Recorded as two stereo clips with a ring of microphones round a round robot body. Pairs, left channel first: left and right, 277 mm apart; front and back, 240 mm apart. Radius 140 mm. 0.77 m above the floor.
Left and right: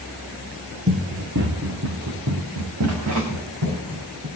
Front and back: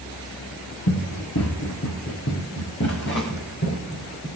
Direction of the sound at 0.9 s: 35° right.